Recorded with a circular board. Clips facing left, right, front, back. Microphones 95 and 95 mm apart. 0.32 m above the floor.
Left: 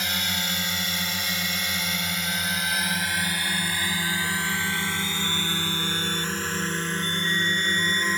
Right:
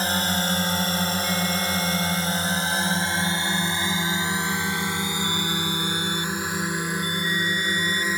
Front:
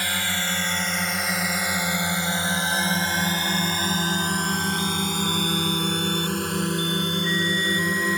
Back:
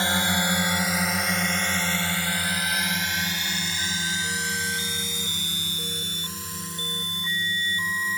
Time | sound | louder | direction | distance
0.0 | a drone | right 6 dB, back 4 dB | 125° right | ?